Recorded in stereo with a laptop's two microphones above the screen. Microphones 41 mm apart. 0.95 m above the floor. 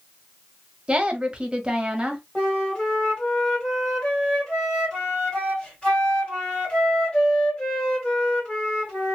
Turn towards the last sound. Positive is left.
turn(degrees=25)  # may be behind; listen again after turning